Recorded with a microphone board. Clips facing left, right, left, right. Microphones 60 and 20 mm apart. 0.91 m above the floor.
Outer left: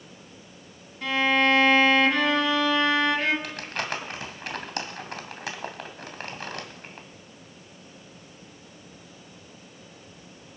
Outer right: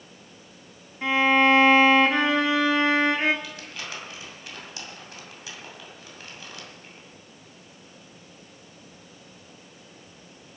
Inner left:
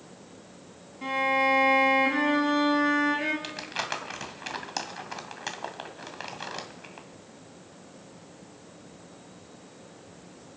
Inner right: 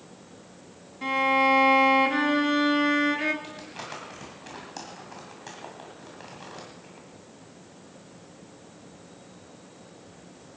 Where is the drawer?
I don't hear a drawer.